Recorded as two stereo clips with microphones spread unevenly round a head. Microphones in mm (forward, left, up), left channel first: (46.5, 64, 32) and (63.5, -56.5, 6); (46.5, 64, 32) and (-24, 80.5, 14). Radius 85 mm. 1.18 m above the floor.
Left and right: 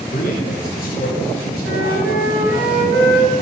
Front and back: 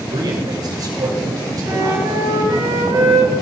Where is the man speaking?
140° left, 5.5 m; by 2.6 s 125° left, 6 m.